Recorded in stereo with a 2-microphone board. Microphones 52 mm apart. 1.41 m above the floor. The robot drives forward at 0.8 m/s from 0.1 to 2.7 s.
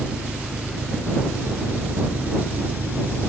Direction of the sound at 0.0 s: 25° right (ahead or behind).